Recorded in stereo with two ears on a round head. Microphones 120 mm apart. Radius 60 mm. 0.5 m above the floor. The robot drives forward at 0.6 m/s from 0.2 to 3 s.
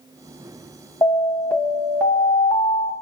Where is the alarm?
20° left (ahead or behind), 2 m.